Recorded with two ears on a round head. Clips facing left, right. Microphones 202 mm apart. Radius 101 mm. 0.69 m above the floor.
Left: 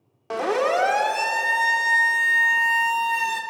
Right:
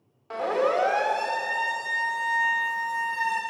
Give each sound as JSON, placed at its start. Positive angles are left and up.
{"t": 0.3, "sound": "a siren", "side_deg": 65, "distance_m": 2.5}